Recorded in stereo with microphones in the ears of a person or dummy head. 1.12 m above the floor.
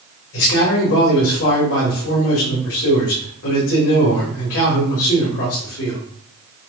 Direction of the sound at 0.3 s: 75° left (ahead or behind).